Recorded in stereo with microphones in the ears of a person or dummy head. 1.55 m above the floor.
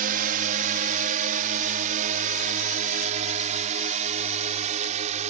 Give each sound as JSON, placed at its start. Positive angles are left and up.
{"t": 0.0, "sound": "a drone", "side_deg": -45}